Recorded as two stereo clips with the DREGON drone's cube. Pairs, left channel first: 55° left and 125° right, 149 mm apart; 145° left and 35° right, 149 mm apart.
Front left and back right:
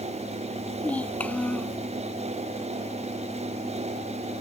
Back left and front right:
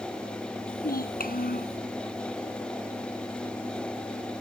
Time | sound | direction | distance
0.7 | a child speaking | 135° left | ?